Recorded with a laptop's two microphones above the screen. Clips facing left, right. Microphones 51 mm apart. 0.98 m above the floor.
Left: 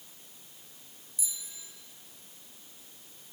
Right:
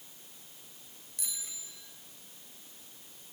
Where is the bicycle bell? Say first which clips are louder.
Even; 70° right (ahead or behind), 3.5 m.